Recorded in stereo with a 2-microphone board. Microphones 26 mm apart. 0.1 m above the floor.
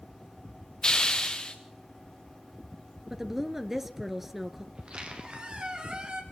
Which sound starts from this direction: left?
A hiss, at 0.8 s.